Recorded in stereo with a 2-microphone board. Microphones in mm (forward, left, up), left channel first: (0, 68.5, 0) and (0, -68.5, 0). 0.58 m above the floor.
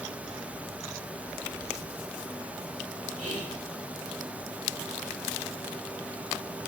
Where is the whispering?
60° right (ahead or behind), 1.7 m.